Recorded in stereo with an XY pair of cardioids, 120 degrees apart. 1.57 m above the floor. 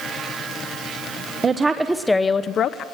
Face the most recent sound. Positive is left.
turn(degrees=65)